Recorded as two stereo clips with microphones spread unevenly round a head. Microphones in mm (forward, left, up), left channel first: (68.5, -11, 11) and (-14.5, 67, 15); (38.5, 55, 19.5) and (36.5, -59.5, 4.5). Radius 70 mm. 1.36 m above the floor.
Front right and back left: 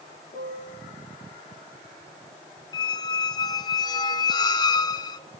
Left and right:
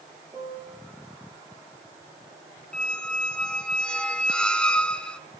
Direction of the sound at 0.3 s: 40° right.